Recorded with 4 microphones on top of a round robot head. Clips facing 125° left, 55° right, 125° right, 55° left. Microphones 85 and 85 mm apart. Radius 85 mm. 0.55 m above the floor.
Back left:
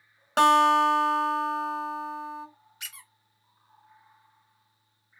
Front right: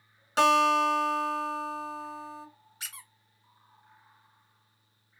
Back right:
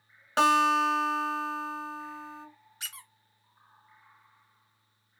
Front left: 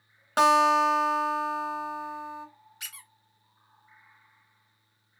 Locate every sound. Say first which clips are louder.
0.4 s a guitar: back left 3 dB, front left 3 dB; 125° left, 1.5 m
2.8 s a squeak: even, back right 2 dB; 90° right, 0.8 m